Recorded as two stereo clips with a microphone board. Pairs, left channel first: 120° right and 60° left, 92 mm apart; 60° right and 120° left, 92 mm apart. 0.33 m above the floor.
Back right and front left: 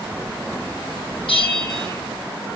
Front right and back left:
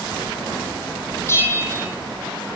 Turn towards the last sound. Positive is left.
turn(degrees=-120)